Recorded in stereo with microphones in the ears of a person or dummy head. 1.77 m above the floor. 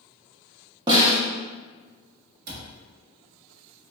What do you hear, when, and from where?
0.9 s a snare drum: 25° right (ahead or behind), 0.7 m
2.5 s a cupboard door: 50° right (ahead or behind), 0.5 m